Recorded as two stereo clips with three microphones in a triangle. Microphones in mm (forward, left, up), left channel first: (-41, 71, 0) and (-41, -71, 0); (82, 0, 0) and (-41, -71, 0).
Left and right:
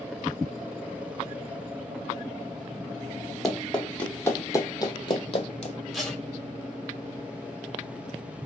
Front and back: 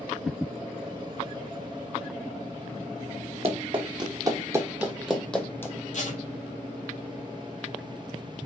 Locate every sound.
3.4 s running footsteps: straight behind, 1.3 m; by 5.8 s 95° left, 1.0 m
5.9 s tape being pulled: straight ahead, 1.4 m